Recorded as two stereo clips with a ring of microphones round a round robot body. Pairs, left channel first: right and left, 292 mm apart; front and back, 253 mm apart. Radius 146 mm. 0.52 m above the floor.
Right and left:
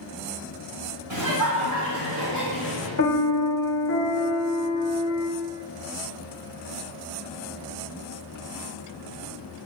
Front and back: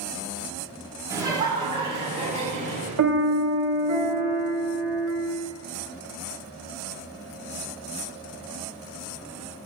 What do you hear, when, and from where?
1.1 s laughter: 105° left, 3 m; by 2.9 s 120° left, 4.5 m
3.0 s a piano: 145° right, 1.4 m